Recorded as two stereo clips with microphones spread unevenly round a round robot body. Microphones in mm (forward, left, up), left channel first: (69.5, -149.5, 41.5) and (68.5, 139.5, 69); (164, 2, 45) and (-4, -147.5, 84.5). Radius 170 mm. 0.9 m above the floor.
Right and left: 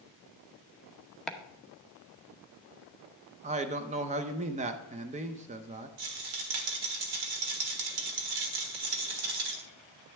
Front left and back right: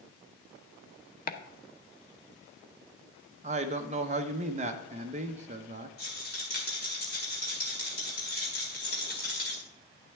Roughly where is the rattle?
Left.